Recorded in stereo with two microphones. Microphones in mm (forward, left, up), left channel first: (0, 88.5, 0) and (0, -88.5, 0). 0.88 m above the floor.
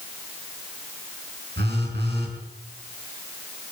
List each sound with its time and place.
1.6 s a phone buzzing: 75° right (ahead or behind), 6 m